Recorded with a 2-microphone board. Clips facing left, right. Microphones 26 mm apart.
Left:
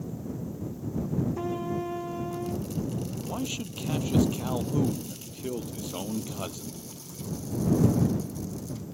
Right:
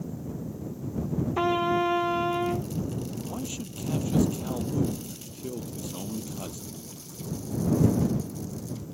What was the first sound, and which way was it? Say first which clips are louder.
A trumpet: right 7 dB; 60° right (ahead or behind).